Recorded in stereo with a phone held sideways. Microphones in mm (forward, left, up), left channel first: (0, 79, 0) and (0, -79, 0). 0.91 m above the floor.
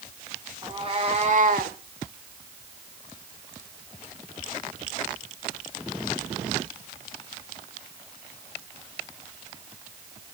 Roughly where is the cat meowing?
Right.